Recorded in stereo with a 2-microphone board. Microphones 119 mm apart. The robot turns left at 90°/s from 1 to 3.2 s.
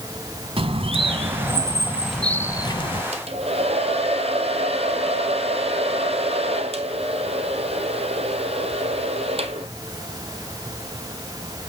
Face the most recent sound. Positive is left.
turn(degrees=-60)  # may be behind; listen again after turning